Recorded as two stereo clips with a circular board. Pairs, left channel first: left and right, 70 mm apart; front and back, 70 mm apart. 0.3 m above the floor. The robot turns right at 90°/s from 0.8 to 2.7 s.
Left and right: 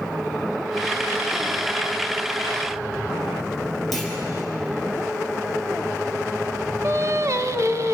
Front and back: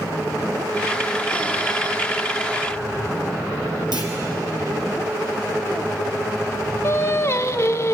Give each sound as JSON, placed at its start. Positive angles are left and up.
{"t": 3.9, "sound": "a clunk", "azimuth_deg": 180, "distance_m": 4.5}
{"t": 6.8, "sound": "singing", "azimuth_deg": -50, "distance_m": 0.7}